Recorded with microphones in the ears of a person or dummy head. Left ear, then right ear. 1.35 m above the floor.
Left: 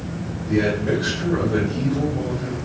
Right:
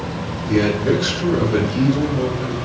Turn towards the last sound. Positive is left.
turn(degrees=-70)  # may be behind; listen again after turning